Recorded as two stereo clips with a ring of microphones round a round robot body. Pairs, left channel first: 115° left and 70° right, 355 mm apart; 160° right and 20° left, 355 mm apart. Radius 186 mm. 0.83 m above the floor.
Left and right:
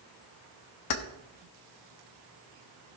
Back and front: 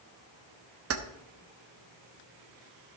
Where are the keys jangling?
75° left, 1.0 m.